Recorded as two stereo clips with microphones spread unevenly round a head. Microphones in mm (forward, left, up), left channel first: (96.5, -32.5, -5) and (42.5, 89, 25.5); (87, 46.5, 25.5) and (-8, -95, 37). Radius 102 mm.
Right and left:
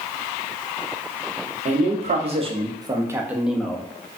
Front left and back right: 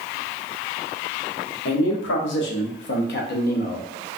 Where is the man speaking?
80° left, 1.1 m; by 3.9 s 10° left, 0.9 m.